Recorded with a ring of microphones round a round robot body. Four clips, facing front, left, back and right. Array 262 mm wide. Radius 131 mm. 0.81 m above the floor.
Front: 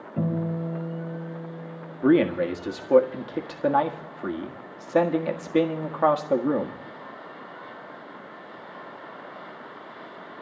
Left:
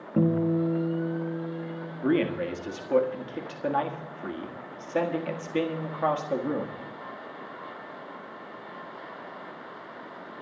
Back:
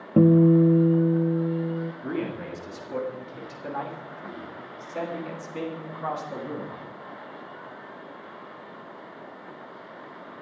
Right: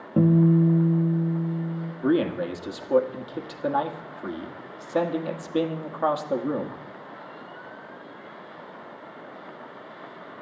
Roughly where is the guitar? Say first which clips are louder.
Right 5 dB, back 12 dB; behind.